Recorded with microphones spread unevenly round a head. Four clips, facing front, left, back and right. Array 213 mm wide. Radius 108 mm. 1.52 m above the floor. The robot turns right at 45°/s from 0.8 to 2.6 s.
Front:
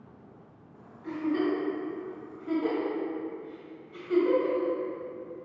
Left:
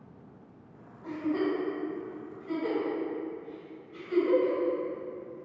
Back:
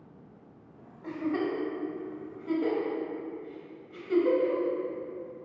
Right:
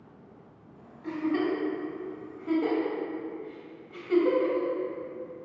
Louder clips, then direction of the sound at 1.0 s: Right 2 dB, front 2 dB; 165° left.